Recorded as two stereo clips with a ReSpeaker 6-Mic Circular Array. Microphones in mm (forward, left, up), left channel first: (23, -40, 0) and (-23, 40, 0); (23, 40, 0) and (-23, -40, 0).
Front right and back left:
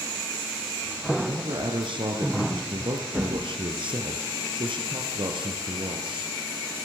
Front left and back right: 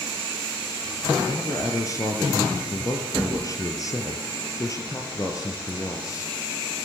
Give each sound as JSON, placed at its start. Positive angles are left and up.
{"t": 1.2, "sound": "a man speaking", "azimuth_deg": 110, "distance_m": 4.0}